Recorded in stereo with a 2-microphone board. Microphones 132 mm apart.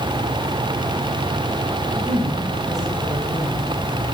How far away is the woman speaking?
About 7 m.